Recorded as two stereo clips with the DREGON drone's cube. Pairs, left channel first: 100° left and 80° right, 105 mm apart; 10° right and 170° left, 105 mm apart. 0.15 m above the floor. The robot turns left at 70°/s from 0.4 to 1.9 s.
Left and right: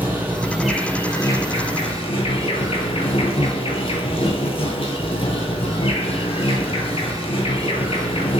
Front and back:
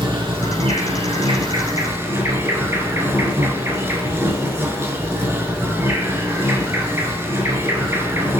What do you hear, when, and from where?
0.0 s an insect: 150° right, 0.8 m; by 8.4 s 105° left, 0.8 m